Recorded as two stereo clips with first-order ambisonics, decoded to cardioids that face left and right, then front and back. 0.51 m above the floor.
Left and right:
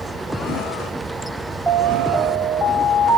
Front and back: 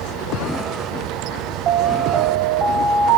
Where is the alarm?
170° right, 0.5 m.